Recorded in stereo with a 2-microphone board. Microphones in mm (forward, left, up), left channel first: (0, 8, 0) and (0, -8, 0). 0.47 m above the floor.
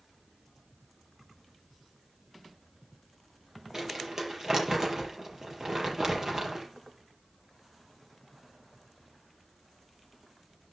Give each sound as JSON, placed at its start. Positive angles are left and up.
{"t": 3.7, "sound": "crumpling", "side_deg": -30, "distance_m": 5.5}